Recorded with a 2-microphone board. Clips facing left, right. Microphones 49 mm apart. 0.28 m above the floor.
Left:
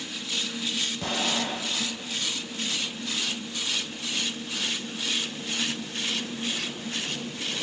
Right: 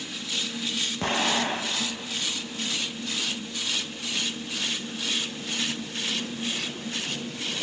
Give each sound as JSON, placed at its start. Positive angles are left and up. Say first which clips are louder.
{"t": 1.0, "sound": "an explosion", "louder": "right 4 dB", "side_deg": -45, "distance_m": 0.5}